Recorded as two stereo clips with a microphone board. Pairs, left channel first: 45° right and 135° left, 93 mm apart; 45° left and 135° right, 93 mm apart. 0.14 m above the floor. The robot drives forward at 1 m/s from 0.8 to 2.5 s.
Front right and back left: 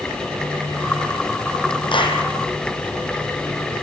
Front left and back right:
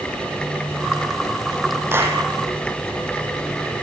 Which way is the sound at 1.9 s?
70° right.